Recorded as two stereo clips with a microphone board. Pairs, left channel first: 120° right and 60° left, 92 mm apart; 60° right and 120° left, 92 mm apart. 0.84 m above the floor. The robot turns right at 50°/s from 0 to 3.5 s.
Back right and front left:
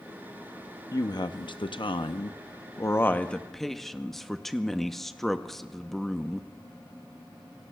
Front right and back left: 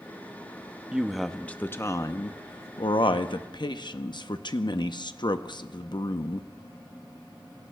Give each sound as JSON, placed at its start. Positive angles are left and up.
{"t": 0.9, "sound": "a woman speaking", "azimuth_deg": -165, "distance_m": 0.7}